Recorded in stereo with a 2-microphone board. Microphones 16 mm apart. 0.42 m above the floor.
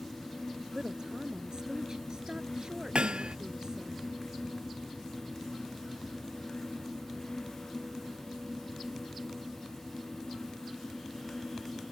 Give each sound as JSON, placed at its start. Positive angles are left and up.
{"t": 0.7, "sound": "a woman speaking", "side_deg": -45}
{"t": 3.0, "sound": "hammering", "side_deg": -90}